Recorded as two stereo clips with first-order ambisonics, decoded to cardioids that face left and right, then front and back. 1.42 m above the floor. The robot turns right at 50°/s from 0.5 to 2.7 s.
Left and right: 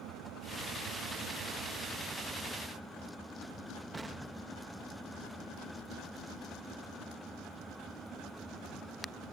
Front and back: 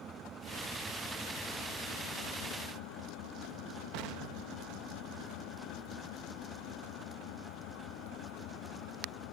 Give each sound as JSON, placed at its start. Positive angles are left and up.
{"t": 0.0, "sound": "an engine running", "azimuth_deg": -120}
{"t": 3.9, "sound": "an explosion", "azimuth_deg": -165}